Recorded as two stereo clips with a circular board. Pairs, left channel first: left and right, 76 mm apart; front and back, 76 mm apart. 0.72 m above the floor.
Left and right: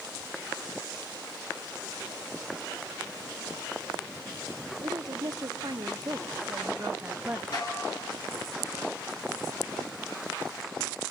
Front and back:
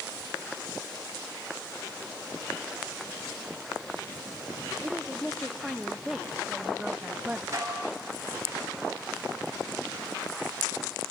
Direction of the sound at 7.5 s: 125° left.